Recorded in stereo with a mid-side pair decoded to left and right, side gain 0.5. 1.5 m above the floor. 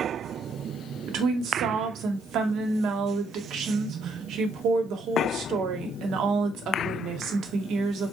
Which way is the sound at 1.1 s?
65° right.